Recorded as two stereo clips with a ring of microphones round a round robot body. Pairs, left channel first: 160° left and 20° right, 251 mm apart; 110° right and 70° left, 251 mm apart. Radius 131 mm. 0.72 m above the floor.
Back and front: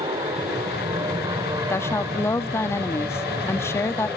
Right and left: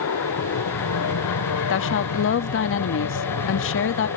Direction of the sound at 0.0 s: 95° right.